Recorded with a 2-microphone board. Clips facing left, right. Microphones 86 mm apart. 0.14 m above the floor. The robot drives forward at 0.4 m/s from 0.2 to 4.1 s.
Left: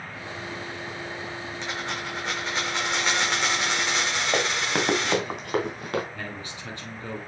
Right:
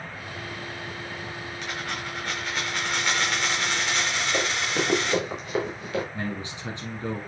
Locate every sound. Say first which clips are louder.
1.6 s a dropped coin: left 1 dB; 25° left (ahead or behind), 4 m; by 5.2 s 20° left (ahead or behind), 5 m
4.3 s running footsteps: left 2 dB; 60° left (ahead or behind), 3 m; by 6.0 s 55° left (ahead or behind), 4 m
6.1 s a man speaking: right 4 dB; 20° right (ahead or behind), 1.5 m